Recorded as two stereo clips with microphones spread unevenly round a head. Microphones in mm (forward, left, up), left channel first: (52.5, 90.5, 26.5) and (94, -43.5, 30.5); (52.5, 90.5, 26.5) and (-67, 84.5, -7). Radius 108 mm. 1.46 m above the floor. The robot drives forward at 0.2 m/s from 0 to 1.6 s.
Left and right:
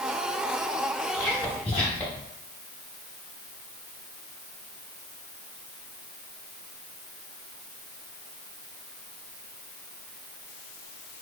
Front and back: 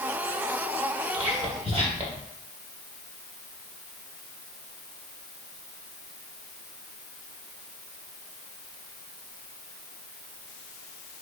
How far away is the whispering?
About 0.8 m.